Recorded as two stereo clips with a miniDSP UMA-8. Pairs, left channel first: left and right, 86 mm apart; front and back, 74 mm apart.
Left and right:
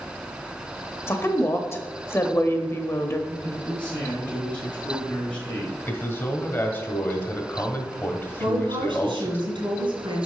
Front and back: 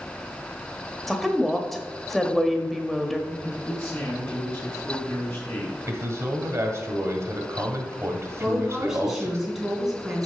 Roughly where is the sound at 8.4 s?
Right.